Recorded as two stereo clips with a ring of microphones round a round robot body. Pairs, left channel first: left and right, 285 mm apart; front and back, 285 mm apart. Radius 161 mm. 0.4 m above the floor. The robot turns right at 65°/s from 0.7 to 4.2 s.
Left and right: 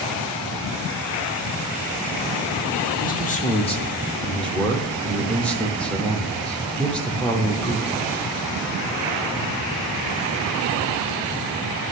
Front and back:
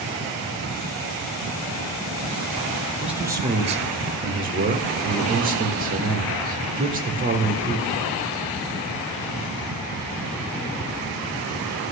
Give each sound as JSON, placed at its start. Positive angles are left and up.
{"t": 3.0, "sound": "a man speaking", "azimuth_deg": 95, "distance_m": 0.8}